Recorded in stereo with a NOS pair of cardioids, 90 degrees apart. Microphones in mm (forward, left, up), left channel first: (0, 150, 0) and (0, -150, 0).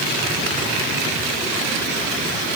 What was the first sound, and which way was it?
Only background noise.